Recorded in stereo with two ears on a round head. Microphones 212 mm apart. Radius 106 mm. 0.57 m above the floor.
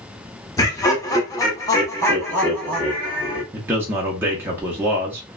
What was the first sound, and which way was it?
Laughter, 15° left (ahead or behind).